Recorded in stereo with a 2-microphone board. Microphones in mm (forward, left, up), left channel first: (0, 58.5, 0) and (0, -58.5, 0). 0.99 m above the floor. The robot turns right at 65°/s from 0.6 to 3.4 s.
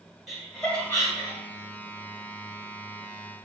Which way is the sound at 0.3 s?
Centre (ahead or behind).